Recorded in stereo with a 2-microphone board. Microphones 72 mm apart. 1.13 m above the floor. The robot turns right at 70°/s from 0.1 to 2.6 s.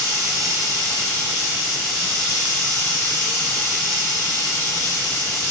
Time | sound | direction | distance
0.0 | running water | 120° right | 1.5 m